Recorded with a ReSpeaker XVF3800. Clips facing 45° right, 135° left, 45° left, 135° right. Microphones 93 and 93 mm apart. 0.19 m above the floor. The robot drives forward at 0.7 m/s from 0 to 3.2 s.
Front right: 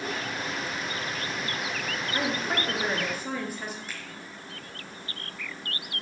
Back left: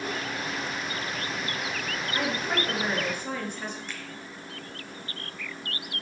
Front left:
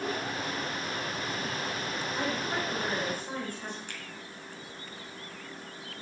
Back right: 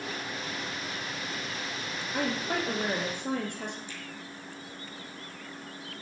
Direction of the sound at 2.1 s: 120° right.